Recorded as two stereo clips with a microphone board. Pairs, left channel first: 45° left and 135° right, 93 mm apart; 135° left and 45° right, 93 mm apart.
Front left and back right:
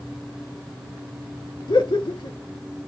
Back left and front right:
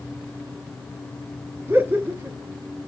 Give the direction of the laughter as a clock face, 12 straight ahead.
11 o'clock.